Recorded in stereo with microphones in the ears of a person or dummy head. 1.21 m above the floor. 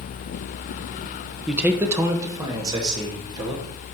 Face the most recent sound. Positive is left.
turn(degrees=-25)  # may be behind; listen again after turning